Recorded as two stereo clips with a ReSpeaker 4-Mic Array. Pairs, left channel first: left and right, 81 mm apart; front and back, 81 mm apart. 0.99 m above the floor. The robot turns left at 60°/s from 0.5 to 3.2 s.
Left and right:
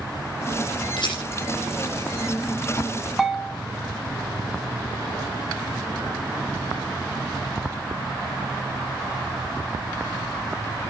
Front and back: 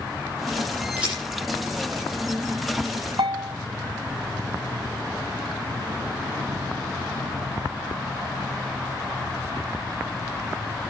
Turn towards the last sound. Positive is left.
turn(degrees=-175)